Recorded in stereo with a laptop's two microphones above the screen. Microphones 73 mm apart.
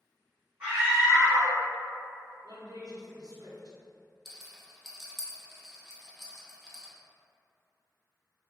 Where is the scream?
30° right (ahead or behind), 1.1 m.